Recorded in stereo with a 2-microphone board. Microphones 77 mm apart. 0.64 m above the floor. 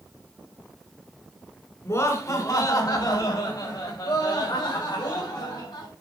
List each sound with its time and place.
1.9 s laughter: 40° left (ahead or behind), 2.5 m; by 5.9 s 75° left (ahead or behind), 5 m